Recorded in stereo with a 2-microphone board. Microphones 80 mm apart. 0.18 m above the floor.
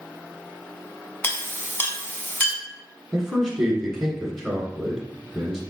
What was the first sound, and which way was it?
A clink, 20° left (ahead or behind).